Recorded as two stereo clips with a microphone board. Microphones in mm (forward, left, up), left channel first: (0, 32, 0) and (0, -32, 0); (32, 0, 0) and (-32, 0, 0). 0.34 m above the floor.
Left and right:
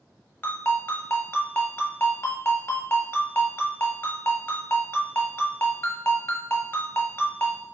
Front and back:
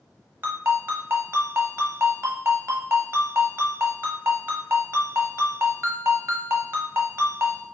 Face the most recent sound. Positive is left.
turn(degrees=140)